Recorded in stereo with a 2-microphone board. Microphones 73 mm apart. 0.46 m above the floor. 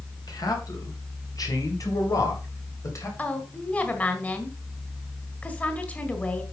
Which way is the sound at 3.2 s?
20° left (ahead or behind).